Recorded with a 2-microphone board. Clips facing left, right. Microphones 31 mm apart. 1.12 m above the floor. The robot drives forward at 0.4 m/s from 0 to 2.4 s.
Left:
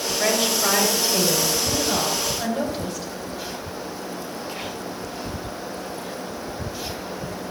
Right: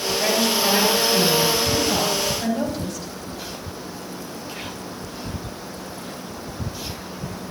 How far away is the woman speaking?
About 6 m.